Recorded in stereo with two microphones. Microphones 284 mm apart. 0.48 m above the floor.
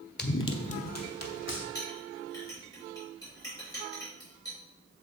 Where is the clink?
10° left (ahead or behind), 4 m.